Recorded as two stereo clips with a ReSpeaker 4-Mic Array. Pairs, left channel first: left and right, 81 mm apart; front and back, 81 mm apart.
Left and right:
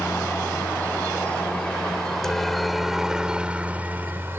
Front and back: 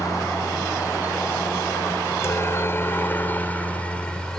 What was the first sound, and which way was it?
A helicopter, 35° left.